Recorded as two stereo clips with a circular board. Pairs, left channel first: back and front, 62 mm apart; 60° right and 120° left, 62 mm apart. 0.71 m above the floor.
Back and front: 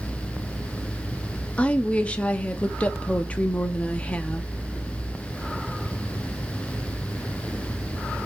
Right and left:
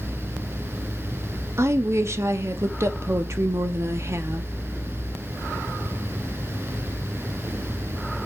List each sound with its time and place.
1.6 s a woman speaking: 120° left, 1.0 m